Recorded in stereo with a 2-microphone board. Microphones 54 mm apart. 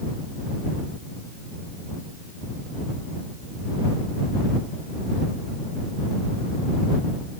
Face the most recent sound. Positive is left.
No sound to turn to.